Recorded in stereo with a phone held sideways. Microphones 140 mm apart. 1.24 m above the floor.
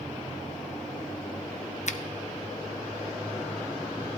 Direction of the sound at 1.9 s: 55° left (ahead or behind).